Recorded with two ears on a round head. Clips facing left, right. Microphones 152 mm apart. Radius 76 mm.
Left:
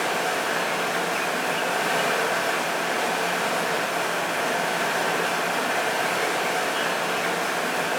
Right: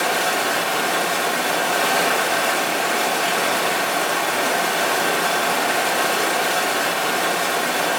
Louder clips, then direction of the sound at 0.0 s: Right 4 dB; 80° right.